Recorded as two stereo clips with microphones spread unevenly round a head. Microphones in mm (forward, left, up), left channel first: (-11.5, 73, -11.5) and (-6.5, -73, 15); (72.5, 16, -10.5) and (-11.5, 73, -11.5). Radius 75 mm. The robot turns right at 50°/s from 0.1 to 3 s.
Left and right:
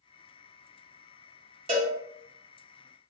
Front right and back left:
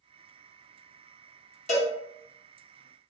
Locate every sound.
1.7 s a cowbell: 35° right, 1.0 m; by 1.9 s 20° right, 1.0 m